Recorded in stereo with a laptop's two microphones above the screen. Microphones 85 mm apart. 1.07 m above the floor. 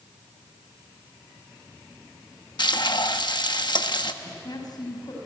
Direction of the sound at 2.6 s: 65° left (ahead or behind).